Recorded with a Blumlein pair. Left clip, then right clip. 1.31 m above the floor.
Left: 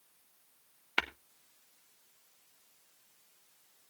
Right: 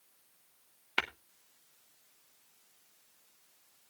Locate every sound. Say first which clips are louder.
1.0 s tapping: even; 5° left, 0.8 m